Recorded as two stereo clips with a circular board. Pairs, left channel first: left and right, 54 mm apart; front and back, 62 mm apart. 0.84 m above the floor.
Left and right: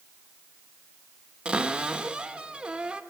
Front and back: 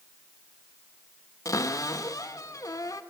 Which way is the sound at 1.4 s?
15° right.